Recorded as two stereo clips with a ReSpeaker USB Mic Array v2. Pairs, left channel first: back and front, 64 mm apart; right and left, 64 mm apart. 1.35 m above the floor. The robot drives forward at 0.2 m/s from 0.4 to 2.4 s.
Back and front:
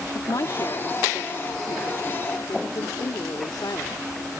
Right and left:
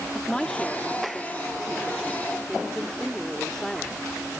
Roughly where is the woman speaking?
Behind.